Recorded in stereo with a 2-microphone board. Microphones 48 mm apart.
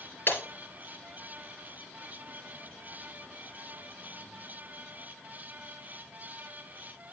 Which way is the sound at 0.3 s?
50° left (ahead or behind).